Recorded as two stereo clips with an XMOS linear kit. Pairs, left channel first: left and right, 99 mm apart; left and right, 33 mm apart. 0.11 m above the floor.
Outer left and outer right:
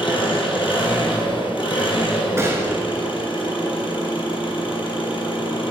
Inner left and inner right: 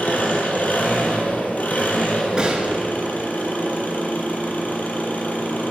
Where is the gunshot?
30° right (ahead or behind), 1.1 m.